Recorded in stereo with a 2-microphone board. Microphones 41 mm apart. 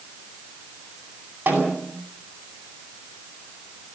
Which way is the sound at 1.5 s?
40° right (ahead or behind).